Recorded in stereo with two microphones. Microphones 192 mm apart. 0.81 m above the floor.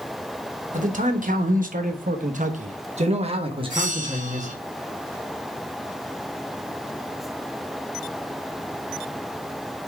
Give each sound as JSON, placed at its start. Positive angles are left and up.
{"t": 0.7, "sound": "a man speaking", "side_deg": -40, "distance_m": 1.3}
{"t": 3.7, "sound": "a bell", "side_deg": -40, "distance_m": 1.2}